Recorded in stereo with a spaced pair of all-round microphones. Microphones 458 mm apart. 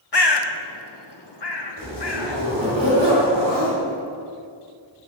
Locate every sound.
0.1 s a bird: 60° left (ahead or behind), 0.9 m
1.8 s a zipper: 65° right (ahead or behind), 3 m